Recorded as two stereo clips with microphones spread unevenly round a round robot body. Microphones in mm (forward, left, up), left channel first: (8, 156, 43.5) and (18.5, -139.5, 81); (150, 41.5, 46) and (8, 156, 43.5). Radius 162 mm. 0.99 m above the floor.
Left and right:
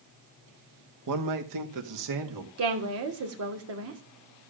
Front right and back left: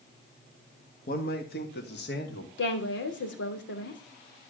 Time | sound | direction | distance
1.1 | a man speaking | 80° right | 1.7 m
2.6 | a woman speaking | 45° right | 3 m